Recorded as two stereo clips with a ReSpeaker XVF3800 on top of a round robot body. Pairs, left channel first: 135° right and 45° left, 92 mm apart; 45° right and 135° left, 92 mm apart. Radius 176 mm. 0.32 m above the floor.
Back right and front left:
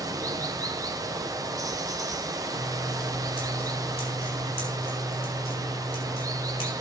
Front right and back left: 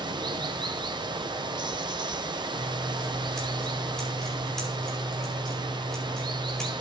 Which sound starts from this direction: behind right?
Scissors, at 2.5 s.